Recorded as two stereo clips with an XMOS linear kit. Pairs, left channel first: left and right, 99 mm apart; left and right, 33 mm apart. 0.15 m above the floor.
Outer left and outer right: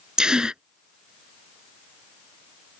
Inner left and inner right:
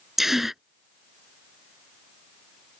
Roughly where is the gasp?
Centre.